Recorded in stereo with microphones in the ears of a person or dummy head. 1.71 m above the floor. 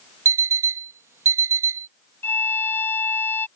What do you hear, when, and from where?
0.2 s an alarm clock: 10° right (ahead or behind)
2.2 s a violin: 15° left (ahead or behind)